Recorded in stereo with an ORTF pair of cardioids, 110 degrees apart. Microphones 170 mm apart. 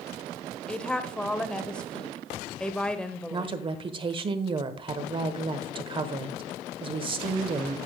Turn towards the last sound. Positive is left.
turn(degrees=-30)